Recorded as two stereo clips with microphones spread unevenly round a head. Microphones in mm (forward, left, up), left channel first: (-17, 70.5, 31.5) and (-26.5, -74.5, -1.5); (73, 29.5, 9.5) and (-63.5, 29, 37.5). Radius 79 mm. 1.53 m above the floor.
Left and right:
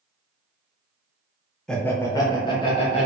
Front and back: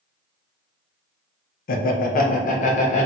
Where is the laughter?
Straight ahead, 0.6 m; by 3.1 s 30° left, 1.1 m.